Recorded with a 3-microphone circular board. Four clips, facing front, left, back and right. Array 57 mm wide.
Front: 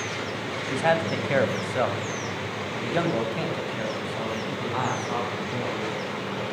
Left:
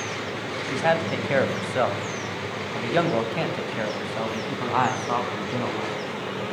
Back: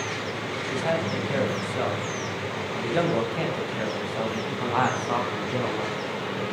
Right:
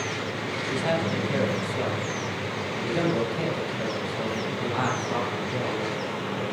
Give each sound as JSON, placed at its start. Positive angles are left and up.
{"t": 0.7, "sound": "a man speaking", "azimuth_deg": 45, "distance_m": 2.5}